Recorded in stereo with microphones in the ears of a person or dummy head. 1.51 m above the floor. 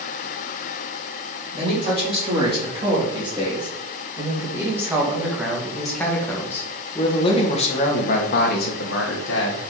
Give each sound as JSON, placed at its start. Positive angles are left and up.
{"t": 1.5, "sound": "a man speaking", "side_deg": -35, "distance_m": 4.0}